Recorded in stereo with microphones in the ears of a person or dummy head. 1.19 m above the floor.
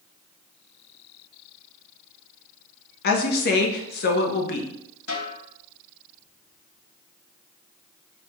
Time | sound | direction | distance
3.0 | a woman speaking | 55° left (ahead or behind) | 0.8 m
5.1 | a snare drum | 70° left (ahead or behind) | 1.8 m